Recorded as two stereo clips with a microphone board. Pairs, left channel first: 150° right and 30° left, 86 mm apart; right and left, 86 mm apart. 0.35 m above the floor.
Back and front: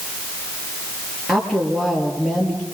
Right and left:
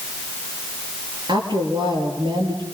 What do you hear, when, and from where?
1.3 s a woman speaking: 120° left, 5.5 m